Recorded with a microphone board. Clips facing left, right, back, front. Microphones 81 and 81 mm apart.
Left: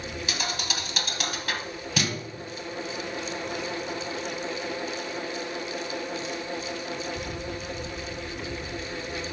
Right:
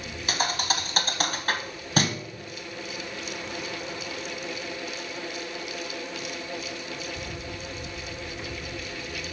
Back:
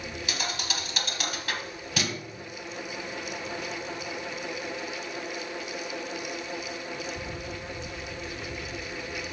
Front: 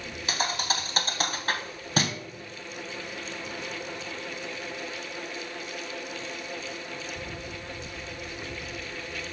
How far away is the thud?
About 0.9 m.